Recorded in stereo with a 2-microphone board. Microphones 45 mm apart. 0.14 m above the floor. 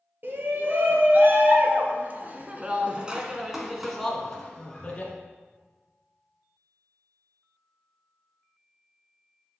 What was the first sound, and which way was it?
A shout, 50° right (ahead or behind).